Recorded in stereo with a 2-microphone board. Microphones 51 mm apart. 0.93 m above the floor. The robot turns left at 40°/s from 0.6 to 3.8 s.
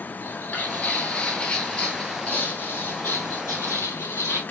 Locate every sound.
0.2 s footsteps: 35° left (ahead or behind), 1.2 m; by 4.4 s 65° left (ahead or behind), 2.0 m